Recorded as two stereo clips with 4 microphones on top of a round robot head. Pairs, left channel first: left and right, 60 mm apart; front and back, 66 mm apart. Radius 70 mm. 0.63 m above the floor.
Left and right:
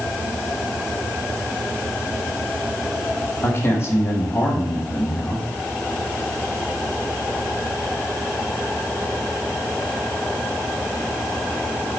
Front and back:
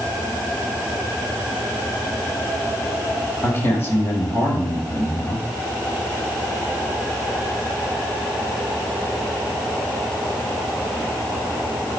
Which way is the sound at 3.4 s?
50° left.